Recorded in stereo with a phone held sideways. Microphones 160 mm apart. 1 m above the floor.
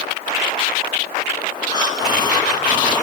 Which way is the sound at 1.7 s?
25° left (ahead or behind).